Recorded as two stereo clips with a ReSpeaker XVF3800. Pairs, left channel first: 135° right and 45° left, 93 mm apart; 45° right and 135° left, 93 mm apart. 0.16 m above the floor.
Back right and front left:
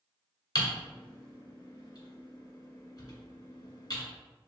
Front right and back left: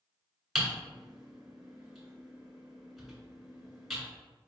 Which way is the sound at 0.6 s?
135° right.